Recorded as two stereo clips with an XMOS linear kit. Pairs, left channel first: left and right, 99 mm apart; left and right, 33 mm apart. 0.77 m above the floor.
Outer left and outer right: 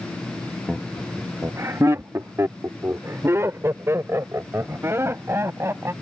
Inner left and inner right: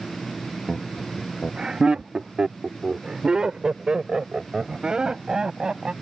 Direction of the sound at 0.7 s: 5° right (ahead or behind).